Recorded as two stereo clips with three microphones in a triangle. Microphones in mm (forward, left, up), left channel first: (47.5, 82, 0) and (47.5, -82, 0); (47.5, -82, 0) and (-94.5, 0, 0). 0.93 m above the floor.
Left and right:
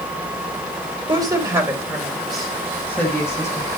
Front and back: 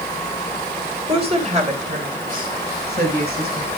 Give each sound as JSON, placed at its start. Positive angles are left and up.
{"t": 1.1, "sound": "a woman speaking", "azimuth_deg": -155, "distance_m": 4.0}